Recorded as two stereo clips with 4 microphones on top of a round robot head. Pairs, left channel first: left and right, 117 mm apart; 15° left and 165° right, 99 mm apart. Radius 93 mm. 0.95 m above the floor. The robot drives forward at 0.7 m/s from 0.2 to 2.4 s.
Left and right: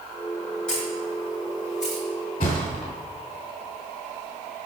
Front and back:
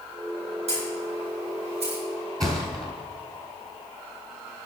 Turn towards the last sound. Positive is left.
turn(degrees=140)